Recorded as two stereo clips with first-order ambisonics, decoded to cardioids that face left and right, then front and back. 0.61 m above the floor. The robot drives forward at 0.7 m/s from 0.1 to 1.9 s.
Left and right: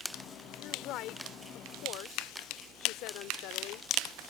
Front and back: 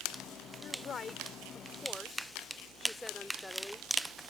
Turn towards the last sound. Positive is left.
turn(degrees=80)